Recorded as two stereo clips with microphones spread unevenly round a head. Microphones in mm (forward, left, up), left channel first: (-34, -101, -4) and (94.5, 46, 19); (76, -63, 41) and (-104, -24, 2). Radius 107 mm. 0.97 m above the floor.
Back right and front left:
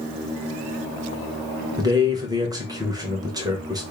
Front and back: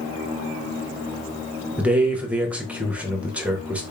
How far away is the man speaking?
About 0.7 m.